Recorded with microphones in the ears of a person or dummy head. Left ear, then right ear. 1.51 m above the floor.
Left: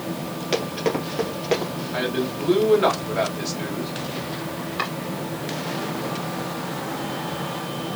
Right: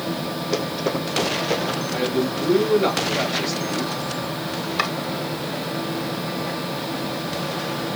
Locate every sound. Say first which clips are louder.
0.5 s running footsteps: left 1 dB; 35° left (ahead or behind), 2.5 m; by 1.7 s 10° left (ahead or behind), 3 m
1.9 s a man speaking: even; 40° left (ahead or behind), 3 m
4.8 s chopping: right 4 dB; 35° right (ahead or behind), 1.2 m